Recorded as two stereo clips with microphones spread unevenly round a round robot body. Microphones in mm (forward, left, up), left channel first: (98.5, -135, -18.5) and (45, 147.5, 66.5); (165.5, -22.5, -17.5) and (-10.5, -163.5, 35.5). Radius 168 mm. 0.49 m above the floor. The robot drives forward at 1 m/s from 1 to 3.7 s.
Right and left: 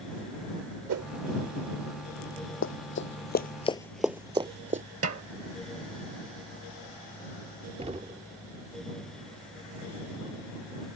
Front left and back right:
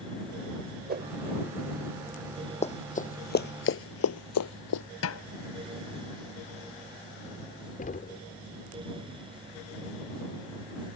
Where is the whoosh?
150° left; by 1.1 s 155° left.